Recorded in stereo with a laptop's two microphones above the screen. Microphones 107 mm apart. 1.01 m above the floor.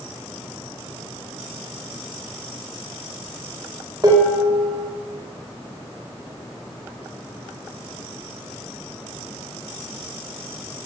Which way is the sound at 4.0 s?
35° right (ahead or behind).